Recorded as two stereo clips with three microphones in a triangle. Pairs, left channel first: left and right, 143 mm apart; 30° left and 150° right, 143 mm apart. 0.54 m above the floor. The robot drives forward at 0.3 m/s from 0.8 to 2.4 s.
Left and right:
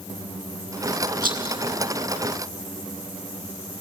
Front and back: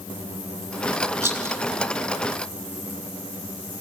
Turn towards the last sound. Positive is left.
turn(degrees=-85)